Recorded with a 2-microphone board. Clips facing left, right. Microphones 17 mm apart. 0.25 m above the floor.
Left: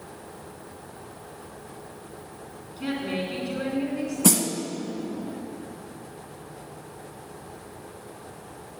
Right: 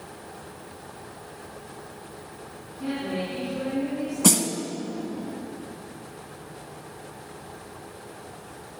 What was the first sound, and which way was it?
A woman speaking, 50° left (ahead or behind).